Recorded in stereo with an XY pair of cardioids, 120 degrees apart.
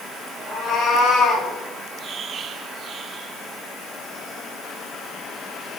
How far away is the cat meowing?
About 5 m.